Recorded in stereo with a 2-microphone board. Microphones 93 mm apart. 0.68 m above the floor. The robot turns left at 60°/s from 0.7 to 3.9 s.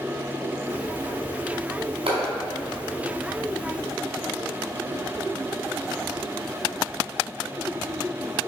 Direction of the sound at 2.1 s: 80° right.